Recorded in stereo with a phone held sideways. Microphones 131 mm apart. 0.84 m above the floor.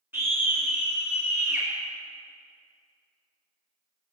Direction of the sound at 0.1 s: 15° right (ahead or behind).